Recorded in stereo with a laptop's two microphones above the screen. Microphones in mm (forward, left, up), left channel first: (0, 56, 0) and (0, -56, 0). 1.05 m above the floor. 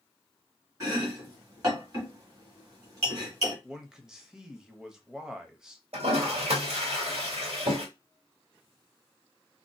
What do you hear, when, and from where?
0.8 s chopping: 30° right (ahead or behind), 1.5 m
3.6 s a man speaking: 5° right (ahead or behind), 0.8 m
5.9 s a toilet flushing: 70° right (ahead or behind), 1.7 m